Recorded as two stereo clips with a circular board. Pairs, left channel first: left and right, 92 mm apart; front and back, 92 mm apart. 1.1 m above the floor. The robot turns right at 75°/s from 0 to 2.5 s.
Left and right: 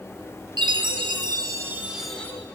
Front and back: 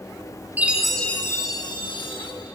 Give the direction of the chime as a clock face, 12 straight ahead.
4 o'clock.